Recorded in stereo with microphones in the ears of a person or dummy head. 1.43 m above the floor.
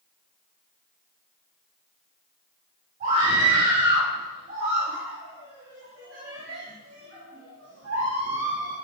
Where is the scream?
45° right (ahead or behind), 5 m; by 8.8 s 70° right (ahead or behind), 3 m.